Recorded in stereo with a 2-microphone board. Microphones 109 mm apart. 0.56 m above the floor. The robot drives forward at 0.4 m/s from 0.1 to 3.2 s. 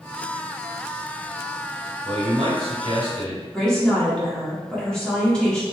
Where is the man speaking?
65° right (ahead or behind), 1.5 m; by 3.4 s 60° right (ahead or behind), 1.5 m.